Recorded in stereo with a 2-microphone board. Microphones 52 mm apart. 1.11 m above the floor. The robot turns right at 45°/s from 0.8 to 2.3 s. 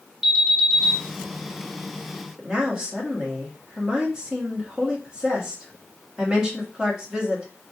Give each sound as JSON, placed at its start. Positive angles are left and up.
{"t": 0.2, "sound": "an alarm", "side_deg": -5, "distance_m": 1.3}
{"t": 2.4, "sound": "a woman speaking", "side_deg": -15, "distance_m": 1.7}